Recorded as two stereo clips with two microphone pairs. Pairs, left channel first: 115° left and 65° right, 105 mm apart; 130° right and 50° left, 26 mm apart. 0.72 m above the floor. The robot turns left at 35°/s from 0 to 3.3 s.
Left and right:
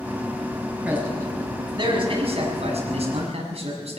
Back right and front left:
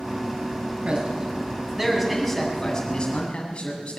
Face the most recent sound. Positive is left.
turn(degrees=-75)